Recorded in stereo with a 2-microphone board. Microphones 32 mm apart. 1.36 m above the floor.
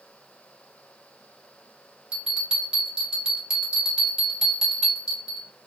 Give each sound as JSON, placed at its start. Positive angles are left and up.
{"t": 2.1, "sound": "a bell", "side_deg": -25, "distance_m": 1.2}